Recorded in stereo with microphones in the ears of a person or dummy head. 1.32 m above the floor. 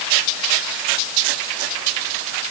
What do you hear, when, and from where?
Only background noise.